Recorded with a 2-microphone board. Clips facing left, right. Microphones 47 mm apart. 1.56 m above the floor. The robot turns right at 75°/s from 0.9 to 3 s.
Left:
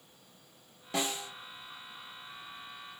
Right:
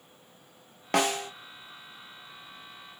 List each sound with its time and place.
0.9 s a snare drum: 75° right (ahead or behind), 1.5 m; by 1.3 s 55° right (ahead or behind), 1.5 m